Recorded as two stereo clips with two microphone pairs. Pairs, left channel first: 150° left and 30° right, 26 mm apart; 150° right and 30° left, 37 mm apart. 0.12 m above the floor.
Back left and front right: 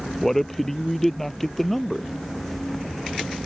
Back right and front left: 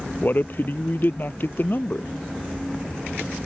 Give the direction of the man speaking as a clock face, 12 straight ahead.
4 o'clock.